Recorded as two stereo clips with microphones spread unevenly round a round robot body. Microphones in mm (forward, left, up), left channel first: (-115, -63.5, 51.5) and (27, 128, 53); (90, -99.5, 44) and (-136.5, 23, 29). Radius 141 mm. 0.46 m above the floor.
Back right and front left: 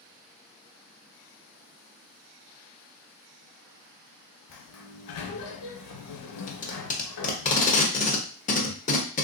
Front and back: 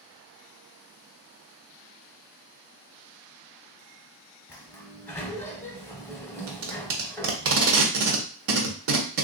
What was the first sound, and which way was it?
A sliding door, 110° right.